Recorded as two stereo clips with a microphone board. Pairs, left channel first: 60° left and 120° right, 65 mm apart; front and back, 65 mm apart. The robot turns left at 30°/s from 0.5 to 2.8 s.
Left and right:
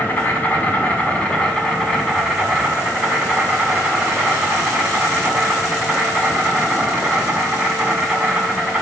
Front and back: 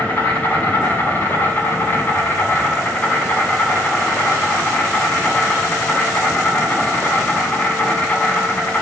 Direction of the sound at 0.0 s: 15° left.